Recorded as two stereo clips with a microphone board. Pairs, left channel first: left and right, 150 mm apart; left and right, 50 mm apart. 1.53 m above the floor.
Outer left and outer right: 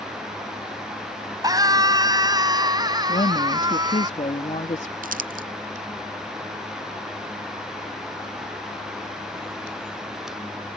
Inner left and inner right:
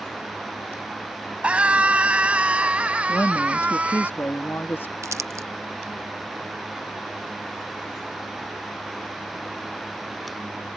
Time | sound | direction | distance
1.4 | a scream | 25° right (ahead or behind) | ?
3.1 | a woman speaking | 50° left (ahead or behind) | ?
5.0 | crumpling | 70° right (ahead or behind) | ?